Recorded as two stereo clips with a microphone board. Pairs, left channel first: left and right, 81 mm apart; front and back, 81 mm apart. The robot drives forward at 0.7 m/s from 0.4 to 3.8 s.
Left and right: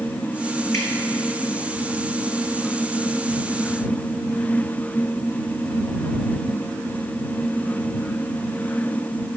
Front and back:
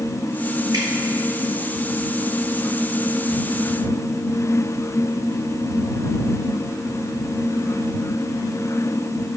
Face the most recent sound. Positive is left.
turn(degrees=165)